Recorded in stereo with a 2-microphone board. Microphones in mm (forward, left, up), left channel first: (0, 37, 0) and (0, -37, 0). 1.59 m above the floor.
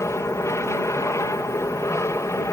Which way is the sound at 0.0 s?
40° left (ahead or behind).